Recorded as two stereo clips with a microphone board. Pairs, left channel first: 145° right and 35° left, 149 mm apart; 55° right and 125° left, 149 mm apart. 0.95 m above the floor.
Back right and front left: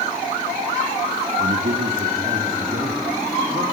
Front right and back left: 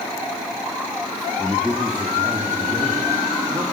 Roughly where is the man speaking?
Ahead left.